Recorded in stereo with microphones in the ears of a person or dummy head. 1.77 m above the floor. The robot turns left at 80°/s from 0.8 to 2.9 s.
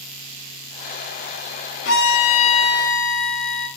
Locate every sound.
1.9 s a violin: 85° left, 1.9 m; by 3.7 s straight ahead, 1.9 m